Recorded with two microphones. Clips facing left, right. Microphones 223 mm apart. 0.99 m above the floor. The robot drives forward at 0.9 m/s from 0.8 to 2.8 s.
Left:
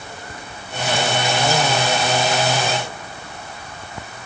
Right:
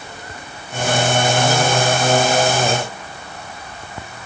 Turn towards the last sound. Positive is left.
No sound to turn to.